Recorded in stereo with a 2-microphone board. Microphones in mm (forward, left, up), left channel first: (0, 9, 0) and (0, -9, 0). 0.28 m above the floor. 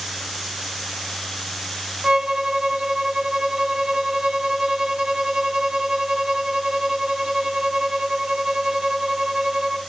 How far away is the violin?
About 1.7 m.